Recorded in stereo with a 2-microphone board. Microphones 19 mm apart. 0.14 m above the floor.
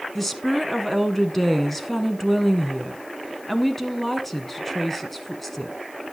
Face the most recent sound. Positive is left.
turn(degrees=15)  # may be behind; listen again after turning